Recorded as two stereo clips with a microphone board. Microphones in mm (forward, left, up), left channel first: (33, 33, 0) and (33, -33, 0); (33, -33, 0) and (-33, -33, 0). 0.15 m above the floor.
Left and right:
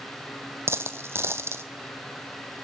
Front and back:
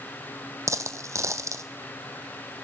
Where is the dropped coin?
140° right, 1.0 m.